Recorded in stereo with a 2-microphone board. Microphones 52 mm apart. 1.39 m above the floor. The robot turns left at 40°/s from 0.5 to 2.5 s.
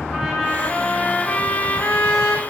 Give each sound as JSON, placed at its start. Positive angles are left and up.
{"t": 0.1, "sound": "a trumpet", "azimuth_deg": 180, "distance_m": 1.6}